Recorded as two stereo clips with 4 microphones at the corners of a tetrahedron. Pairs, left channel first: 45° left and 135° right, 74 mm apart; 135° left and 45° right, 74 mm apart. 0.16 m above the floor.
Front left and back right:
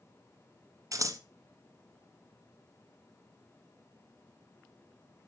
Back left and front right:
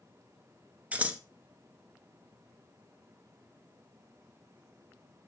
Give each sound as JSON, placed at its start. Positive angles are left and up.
{"t": 0.9, "sound": "scissors", "azimuth_deg": -110, "distance_m": 0.9}